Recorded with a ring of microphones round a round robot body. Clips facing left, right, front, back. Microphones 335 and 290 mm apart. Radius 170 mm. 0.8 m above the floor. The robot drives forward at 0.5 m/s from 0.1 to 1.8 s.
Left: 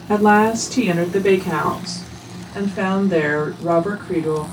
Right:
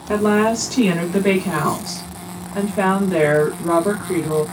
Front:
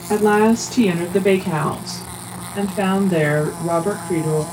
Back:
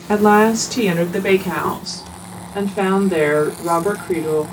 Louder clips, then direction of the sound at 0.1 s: Left 1 dB, back 1 dB; 175° left.